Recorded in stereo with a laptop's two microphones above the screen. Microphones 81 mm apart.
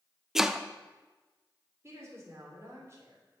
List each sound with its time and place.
0.3 s chopping: 5° right (ahead or behind), 0.5 m
1.8 s a woman speaking: 35° right (ahead or behind), 3.5 m